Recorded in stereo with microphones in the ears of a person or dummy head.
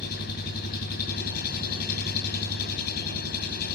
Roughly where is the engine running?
Left.